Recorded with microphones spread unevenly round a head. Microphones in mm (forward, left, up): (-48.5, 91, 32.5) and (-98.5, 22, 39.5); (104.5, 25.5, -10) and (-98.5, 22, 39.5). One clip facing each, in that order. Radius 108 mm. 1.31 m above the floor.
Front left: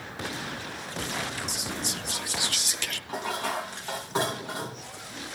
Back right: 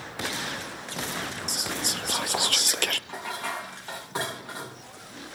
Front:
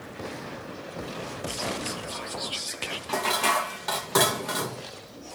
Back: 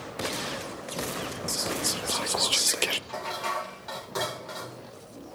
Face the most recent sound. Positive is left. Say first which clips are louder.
# front left 3 dB, front 6 dB
turn(degrees=-25)